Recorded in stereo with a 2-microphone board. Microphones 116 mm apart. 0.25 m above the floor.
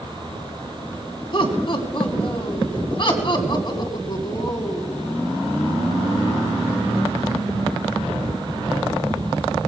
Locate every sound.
1.3 s laughter: 45° left (ahead or behind), 1.9 m; by 5.1 s 30° left (ahead or behind), 2.5 m